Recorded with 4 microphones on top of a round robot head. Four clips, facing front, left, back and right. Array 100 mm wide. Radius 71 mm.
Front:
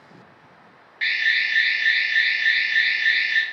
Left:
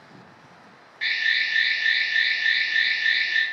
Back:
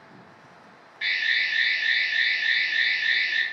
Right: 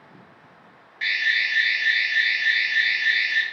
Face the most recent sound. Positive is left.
turn(degrees=-15)